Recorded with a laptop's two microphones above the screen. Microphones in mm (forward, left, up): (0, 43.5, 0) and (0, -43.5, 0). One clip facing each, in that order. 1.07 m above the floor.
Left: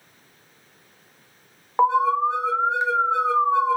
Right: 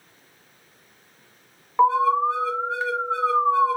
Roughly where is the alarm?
Left.